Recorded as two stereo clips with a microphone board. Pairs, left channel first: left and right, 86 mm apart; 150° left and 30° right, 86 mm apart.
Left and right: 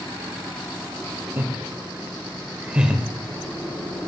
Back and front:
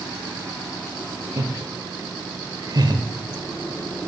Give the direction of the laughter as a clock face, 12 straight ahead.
1 o'clock.